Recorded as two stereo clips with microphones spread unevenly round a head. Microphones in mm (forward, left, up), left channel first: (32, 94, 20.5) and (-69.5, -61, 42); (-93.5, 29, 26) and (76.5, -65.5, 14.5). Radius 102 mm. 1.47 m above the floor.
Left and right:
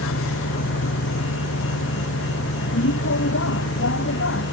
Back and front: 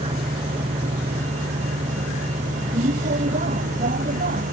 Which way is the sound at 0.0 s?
35° left.